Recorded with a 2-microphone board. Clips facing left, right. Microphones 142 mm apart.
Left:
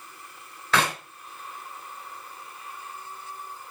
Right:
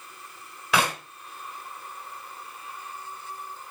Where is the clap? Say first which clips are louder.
Even; 10° right (ahead or behind), 1.8 m.